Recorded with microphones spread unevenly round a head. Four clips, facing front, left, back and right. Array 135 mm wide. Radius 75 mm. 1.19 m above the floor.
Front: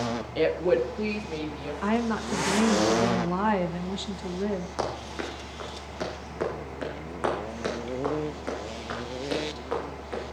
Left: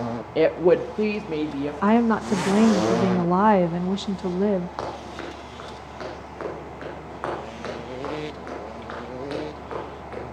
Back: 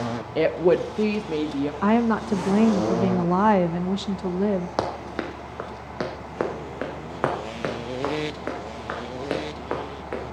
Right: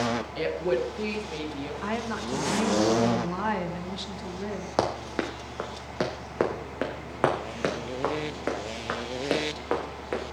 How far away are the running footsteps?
About 2.5 m.